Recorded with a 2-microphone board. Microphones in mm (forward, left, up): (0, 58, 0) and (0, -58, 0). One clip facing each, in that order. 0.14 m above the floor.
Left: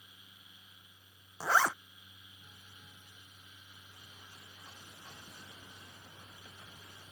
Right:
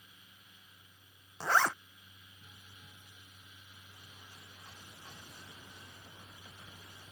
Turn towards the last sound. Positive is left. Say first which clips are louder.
# even
turn(degrees=5)  # may be behind; listen again after turning